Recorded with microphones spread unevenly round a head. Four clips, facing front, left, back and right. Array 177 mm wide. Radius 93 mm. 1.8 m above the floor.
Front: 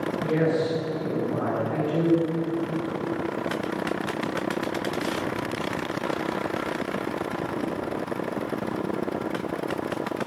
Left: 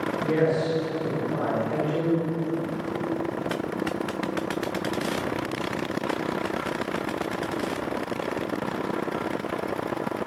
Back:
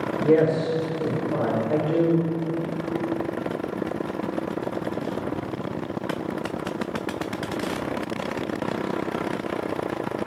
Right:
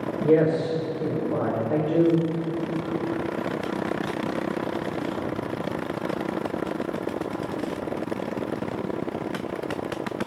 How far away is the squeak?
I don't hear a squeak.